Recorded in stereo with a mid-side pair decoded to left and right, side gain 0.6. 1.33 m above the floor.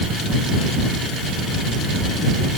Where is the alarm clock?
No alarm clock in this recording.